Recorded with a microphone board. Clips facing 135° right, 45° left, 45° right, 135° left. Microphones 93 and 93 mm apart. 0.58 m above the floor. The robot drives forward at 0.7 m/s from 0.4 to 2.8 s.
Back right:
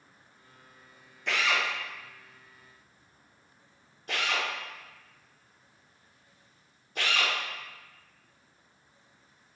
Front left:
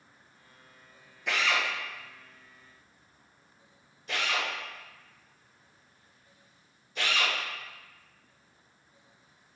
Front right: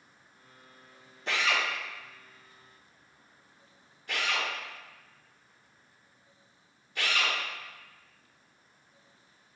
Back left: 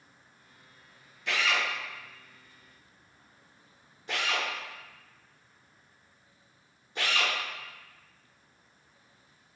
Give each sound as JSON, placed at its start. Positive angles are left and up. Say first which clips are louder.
{"t": 1.3, "sound": "a drill", "louder": "even, even", "azimuth_deg": -40, "distance_m": 0.7}